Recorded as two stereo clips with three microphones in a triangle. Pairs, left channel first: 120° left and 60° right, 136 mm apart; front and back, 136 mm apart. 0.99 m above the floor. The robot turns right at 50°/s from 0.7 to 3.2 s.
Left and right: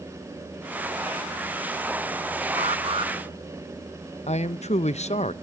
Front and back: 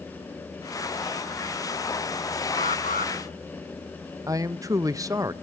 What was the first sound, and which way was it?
An alarm, 30° right.